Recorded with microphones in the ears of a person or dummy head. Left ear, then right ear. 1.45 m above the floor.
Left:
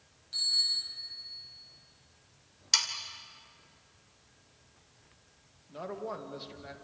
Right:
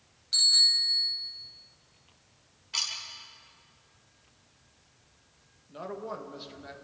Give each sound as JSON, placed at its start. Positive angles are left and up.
{"t": 0.3, "sound": "a bicycle bell", "side_deg": -30, "distance_m": 6.5}
{"t": 2.7, "sound": "sawing", "side_deg": 70, "distance_m": 2.5}
{"t": 5.7, "sound": "a man speaking", "side_deg": 5, "distance_m": 2.0}